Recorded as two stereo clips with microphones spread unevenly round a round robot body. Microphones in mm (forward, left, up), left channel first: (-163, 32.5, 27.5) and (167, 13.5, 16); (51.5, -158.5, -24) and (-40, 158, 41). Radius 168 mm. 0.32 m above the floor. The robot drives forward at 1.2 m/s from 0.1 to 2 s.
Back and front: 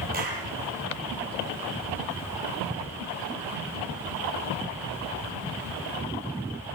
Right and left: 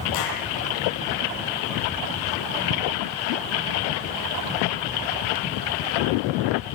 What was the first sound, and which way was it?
A clap, 70° right.